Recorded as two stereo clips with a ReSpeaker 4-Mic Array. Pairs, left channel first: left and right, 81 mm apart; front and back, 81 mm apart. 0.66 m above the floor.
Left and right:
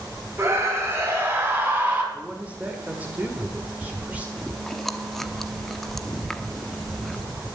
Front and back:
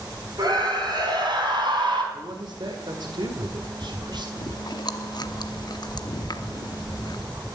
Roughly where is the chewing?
Ahead.